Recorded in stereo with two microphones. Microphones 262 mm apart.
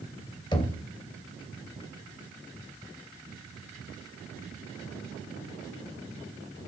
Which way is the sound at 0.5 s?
15° left (ahead or behind).